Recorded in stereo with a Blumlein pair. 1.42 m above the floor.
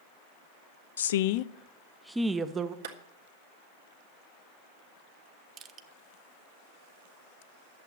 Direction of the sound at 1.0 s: 65° left.